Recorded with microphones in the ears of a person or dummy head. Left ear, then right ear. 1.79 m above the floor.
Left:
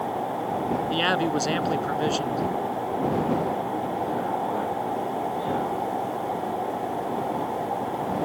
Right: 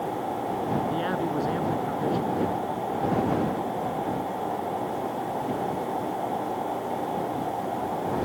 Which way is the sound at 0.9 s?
85° left.